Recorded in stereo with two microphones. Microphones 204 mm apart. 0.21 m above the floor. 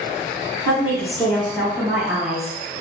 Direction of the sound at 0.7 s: 30° left (ahead or behind).